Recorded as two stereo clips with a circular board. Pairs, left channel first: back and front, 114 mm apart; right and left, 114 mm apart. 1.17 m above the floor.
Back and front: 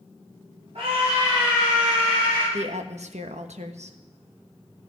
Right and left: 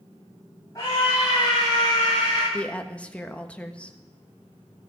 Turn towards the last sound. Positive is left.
turn(degrees=-10)